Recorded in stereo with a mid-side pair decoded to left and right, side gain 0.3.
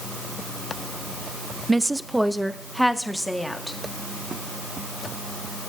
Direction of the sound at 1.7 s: 25° right.